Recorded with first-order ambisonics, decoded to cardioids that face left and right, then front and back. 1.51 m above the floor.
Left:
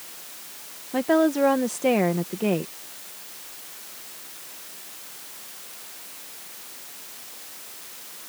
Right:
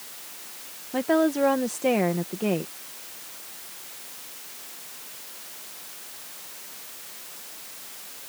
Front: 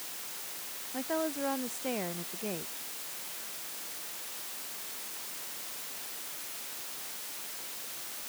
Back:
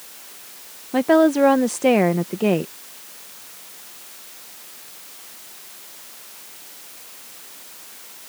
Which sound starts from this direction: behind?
A woman speaking, at 0.9 s.